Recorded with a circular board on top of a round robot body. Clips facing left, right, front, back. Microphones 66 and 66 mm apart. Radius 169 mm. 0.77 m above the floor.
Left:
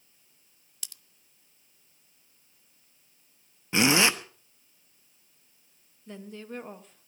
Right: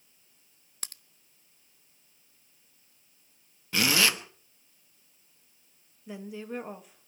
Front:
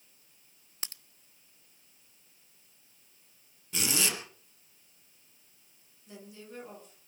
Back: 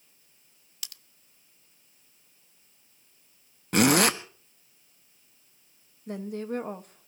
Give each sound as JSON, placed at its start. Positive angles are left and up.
{"t": 0.8, "sound": "a crack", "azimuth_deg": -50, "distance_m": 0.9}
{"t": 3.7, "sound": "a zipper", "azimuth_deg": 155, "distance_m": 1.3}
{"t": 6.1, "sound": "a woman speaking", "azimuth_deg": -170, "distance_m": 1.6}